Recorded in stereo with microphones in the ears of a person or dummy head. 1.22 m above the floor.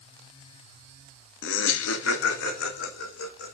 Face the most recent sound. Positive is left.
turn(degrees=80)